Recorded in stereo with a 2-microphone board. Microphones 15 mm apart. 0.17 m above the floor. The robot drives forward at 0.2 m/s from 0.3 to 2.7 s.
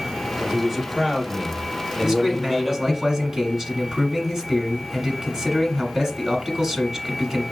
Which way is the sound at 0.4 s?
Centre (ahead or behind).